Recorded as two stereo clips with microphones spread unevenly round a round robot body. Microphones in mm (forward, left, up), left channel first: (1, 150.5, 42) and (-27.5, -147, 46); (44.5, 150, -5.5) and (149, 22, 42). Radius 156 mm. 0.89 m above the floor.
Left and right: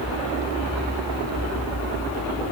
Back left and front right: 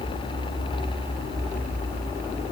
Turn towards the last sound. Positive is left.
No sound to turn to.